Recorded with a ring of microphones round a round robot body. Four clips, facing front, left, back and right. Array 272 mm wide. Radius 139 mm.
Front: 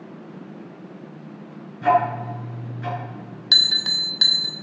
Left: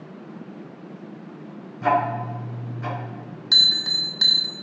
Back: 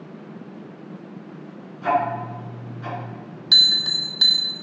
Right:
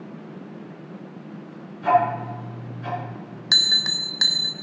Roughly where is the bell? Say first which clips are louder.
Right 2 dB, even; ahead right.